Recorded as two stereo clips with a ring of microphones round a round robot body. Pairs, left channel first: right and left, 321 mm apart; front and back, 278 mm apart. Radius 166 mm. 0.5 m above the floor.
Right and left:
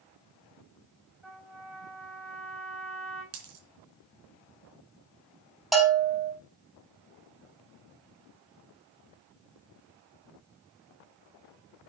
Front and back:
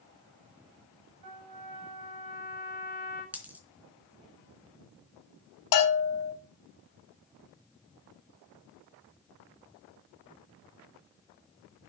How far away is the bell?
About 4.5 m.